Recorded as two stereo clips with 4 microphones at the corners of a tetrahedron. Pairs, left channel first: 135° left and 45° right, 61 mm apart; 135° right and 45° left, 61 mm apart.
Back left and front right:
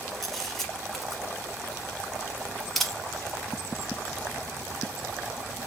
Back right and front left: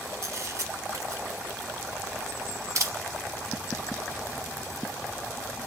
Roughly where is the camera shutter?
Ahead left.